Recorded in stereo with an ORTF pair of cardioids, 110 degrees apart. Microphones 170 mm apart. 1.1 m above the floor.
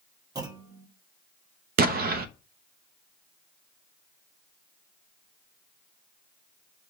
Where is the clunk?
20° right, 1.1 m.